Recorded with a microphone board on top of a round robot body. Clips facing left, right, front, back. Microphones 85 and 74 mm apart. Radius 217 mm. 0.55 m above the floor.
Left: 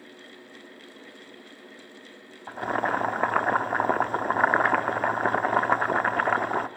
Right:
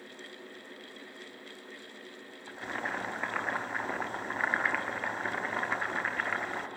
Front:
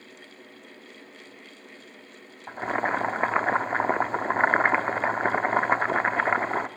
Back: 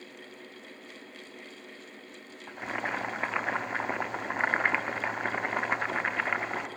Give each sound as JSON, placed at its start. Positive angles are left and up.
{"t": 2.5, "sound": "boiling", "azimuth_deg": 55, "distance_m": 1.3}